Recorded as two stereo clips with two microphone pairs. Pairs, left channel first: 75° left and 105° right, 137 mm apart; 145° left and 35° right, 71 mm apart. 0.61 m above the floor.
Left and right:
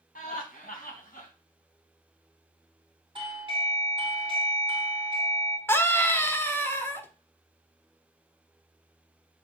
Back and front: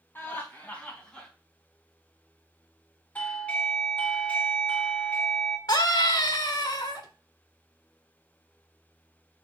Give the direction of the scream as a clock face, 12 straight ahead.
7 o'clock.